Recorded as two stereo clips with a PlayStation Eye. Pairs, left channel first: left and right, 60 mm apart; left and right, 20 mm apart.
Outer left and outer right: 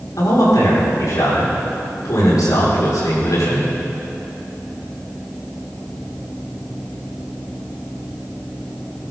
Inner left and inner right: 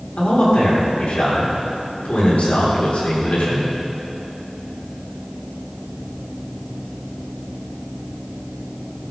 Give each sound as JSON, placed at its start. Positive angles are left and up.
{"t": 0.2, "sound": "a man speaking", "side_deg": 80, "distance_m": 6.5}